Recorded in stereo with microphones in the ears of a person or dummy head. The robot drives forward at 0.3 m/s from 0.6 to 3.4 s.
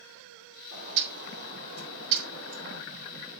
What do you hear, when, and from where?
0.7 s a bird: 70° right (ahead or behind), 4 m; by 2.8 s 80° right, 4 m